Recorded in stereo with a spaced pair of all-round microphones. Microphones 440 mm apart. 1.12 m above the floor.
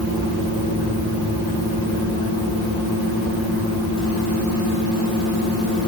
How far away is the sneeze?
I don't hear a sneeze.